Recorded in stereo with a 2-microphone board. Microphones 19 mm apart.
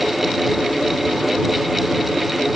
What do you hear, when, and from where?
Only background noise.